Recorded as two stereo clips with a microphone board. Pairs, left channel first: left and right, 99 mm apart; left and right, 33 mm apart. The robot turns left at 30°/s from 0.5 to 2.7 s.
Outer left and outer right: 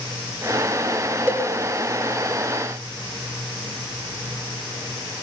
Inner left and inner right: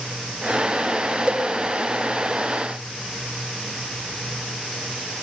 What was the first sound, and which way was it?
A cowbell, 20° right (ahead or behind).